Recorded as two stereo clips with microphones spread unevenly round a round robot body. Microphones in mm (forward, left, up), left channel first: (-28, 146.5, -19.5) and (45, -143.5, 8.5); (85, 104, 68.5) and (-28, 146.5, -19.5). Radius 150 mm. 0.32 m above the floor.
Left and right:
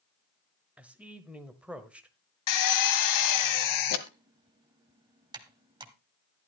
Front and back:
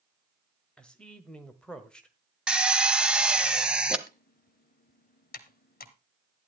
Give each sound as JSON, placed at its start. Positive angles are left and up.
{"t": 0.8, "sound": "a man speaking", "azimuth_deg": -165, "distance_m": 1.1}
{"t": 2.5, "sound": "a drill", "azimuth_deg": 100, "distance_m": 1.3}
{"t": 4.1, "sound": "typing on a keyboard", "azimuth_deg": 0, "distance_m": 1.2}